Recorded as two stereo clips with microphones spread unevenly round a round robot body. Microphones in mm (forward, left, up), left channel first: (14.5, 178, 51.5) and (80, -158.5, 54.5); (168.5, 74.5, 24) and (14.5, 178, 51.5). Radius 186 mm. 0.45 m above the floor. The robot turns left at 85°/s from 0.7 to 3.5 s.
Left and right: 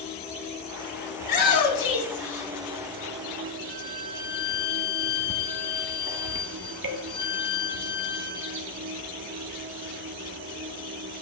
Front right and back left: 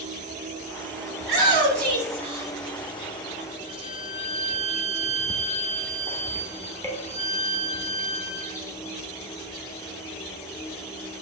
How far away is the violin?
About 3 m.